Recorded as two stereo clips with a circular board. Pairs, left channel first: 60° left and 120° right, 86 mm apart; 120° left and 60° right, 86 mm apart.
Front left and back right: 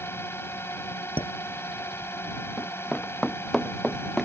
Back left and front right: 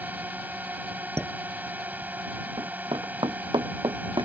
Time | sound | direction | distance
0.0 | a drone | 5° left | ?
1.2 | dishes clattering | 40° left | ?
2.6 | running footsteps | 15° right | ?